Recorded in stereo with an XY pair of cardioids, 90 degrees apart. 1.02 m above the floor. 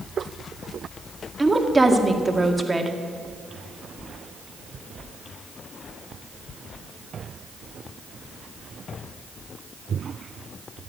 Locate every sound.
1.4 s a woman speaking: 20° right, 2 m